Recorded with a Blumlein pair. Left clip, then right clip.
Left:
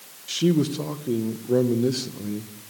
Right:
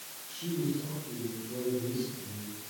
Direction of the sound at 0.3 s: 50° left.